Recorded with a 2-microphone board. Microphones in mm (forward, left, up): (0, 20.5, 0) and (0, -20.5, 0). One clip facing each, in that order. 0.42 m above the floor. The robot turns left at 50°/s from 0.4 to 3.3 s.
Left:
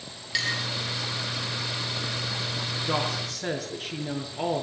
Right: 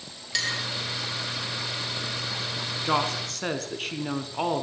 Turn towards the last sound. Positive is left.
turn(degrees=-70)  # may be behind; listen again after turning